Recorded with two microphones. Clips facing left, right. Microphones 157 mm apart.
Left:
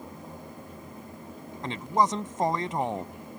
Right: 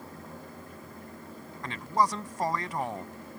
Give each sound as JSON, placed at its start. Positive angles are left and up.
{"t": 1.6, "sound": "a man speaking", "side_deg": 25}